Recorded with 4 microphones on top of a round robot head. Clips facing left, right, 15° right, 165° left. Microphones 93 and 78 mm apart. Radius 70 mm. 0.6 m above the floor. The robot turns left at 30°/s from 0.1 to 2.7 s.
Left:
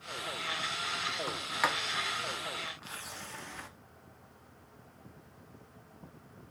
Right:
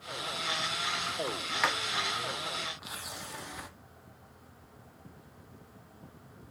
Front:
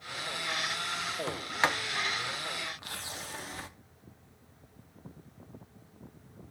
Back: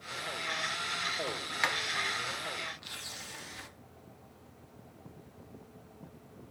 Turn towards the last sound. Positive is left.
turn(degrees=-20)